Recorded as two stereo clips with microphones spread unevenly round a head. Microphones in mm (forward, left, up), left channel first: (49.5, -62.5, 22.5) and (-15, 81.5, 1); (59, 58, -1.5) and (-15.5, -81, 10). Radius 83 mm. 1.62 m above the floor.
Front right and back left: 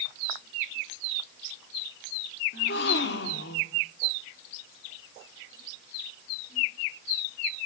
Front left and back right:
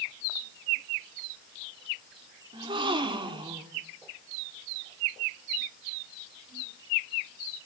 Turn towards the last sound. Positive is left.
turn(degrees=-60)